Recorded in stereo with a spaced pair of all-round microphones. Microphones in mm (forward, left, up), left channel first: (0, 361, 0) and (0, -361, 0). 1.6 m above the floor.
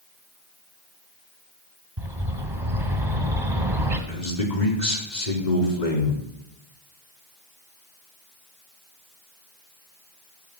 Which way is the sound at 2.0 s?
40° right (ahead or behind).